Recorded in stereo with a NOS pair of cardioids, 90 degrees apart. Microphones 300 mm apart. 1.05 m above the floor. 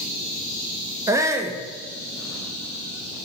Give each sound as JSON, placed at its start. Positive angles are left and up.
{"t": 1.1, "sound": "a shout", "azimuth_deg": -10, "distance_m": 0.6}